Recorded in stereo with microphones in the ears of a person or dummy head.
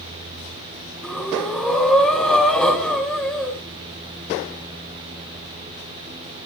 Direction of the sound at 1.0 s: Centre (ahead or behind).